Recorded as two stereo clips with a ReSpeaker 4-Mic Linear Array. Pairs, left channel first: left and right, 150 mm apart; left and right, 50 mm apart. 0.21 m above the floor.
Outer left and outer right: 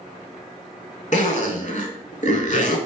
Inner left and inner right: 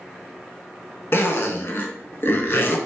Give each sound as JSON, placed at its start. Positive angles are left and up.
{"t": 1.1, "sound": "a zipper", "side_deg": 55, "distance_m": 0.5}